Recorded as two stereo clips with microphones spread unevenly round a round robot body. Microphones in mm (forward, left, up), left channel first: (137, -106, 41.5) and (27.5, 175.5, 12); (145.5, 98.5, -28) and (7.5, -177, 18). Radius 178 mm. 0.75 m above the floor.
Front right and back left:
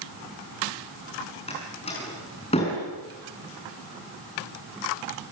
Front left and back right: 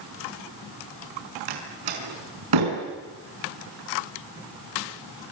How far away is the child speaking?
I don't hear a child speaking.